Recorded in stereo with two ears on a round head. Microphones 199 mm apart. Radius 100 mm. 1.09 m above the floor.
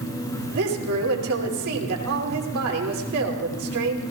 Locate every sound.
0.5 s a woman speaking: 75° right (ahead or behind), 2.5 m